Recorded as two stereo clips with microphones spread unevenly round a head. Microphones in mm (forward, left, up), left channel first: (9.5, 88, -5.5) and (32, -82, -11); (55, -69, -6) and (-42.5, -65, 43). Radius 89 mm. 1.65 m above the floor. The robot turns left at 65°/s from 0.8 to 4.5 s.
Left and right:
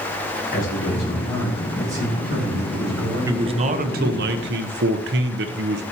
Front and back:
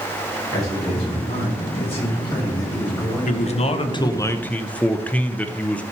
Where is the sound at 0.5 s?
60° left, 2.5 m; by 4.3 s 165° right, 2.5 m.